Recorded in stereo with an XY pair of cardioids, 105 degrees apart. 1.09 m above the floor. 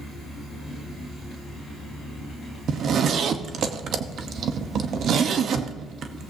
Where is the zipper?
60° right, 1.0 m.